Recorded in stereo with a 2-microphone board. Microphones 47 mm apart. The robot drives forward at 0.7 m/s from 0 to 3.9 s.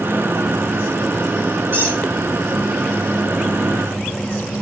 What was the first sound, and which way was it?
A squeak, 55° right (ahead or behind).